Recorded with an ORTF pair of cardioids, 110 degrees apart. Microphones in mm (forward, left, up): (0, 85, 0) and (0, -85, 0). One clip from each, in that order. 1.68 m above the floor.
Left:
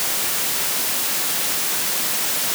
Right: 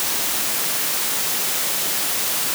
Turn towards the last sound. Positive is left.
No sound to turn to.